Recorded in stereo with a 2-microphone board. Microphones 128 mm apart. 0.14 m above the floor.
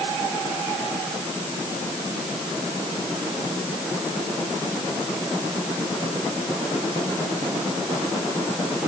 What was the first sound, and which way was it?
Only background noise.